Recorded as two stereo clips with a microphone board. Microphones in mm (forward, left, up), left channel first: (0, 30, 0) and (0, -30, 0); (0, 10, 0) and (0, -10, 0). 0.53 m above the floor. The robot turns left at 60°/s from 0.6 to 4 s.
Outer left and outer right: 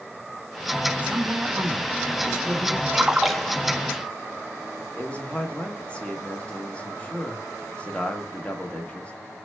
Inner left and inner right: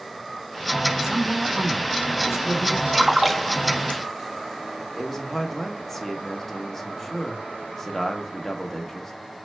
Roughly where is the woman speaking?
Centre.